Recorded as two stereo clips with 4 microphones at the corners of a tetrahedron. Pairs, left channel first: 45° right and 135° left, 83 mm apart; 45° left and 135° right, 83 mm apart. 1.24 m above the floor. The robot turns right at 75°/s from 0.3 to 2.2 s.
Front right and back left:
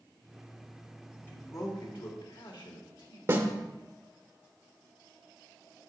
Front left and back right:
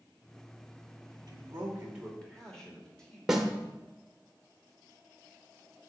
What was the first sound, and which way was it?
A man speaking, 105° right.